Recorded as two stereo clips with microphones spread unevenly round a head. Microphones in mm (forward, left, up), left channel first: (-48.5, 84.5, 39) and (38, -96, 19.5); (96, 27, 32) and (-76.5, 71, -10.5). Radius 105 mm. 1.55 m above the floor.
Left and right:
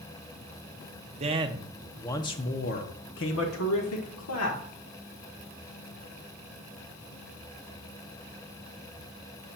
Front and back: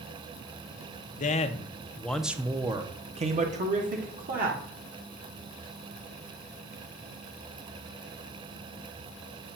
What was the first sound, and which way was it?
A man speaking, 5° right.